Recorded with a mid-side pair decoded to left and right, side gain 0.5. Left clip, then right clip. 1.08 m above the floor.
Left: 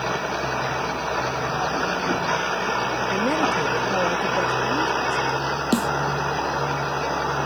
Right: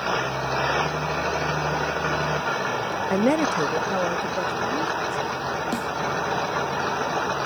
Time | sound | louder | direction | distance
3.1 | a woman speaking | right 1 dB | 45° right | ?
5.7 | a snare drum | left 5 dB | 50° left | ?